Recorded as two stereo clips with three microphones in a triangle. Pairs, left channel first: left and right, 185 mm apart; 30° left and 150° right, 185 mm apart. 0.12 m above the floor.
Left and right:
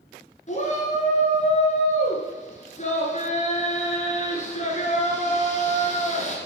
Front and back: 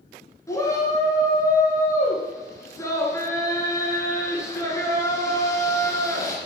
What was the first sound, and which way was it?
A shout, 95° left.